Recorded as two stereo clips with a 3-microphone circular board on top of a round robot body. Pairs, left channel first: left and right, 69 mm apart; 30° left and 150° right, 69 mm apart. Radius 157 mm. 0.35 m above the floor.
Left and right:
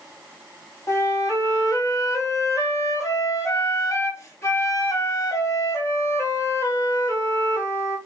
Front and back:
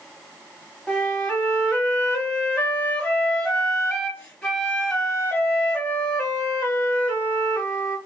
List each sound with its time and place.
0.9 s a flute: 95° left, 1.5 m